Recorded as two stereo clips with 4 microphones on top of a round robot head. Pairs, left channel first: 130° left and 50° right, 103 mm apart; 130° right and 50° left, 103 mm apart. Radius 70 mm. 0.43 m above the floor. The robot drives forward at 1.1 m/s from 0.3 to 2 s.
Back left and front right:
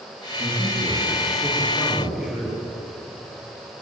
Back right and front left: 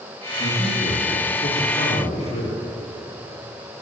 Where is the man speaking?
145° right, 7 m; by 2.6 s 155° right, 8.5 m.